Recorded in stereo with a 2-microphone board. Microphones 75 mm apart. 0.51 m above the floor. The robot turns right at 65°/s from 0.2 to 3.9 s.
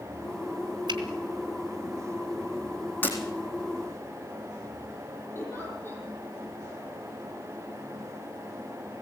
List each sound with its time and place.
0.9 s a finger snap: 65° right (ahead or behind), 3.5 m; by 1.0 s 75° right (ahead or behind), 3.5 m
3.0 s breaking glass: 25° left (ahead or behind), 4 m; by 3.2 s 30° left (ahead or behind), 4 m
5.3 s a giggle: 30° left (ahead or behind), 9.5 m